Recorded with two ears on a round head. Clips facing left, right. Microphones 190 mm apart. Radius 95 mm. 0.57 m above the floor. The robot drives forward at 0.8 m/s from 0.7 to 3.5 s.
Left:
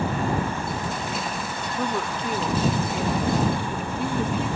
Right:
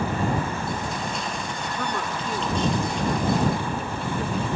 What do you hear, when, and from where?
1.8 s a woman speaking: 10° left (ahead or behind), 0.6 m; by 4.5 s 5° left (ahead or behind), 1.7 m